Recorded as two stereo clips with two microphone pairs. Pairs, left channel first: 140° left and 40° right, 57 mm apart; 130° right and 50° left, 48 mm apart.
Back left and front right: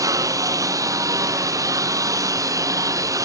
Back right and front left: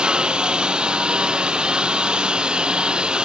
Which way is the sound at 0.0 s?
25° right.